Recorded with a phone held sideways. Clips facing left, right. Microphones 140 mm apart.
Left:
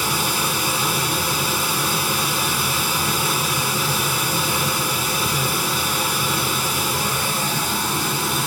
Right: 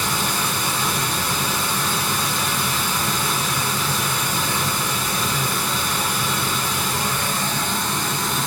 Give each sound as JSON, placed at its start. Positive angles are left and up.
{"t": 0.0, "sound": "running water", "side_deg": 10, "distance_m": 0.9}